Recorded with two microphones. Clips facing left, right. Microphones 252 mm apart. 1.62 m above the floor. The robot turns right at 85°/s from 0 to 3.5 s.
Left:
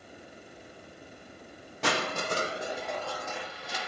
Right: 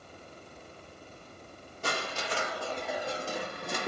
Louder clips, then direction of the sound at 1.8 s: Left 5 dB; 95° left.